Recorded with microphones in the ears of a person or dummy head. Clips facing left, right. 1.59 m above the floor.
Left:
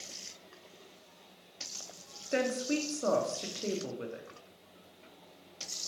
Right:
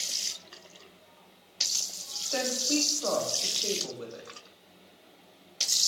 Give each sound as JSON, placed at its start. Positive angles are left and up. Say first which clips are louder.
{"t": 2.3, "sound": "a woman speaking", "louder": "even", "side_deg": 30, "distance_m": 0.9}